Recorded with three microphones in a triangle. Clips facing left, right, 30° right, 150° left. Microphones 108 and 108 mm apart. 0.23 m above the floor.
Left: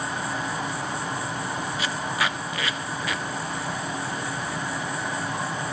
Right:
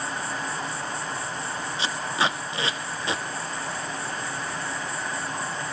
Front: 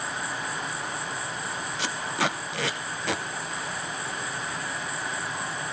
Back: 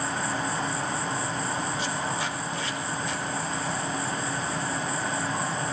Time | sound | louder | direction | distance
0.0 | an insect | left 2 dB, back 4 dB | 155° left | 1.0 m
1.8 | tape being pulled | right 3 dB, front 1 dB | 30° right | 0.8 m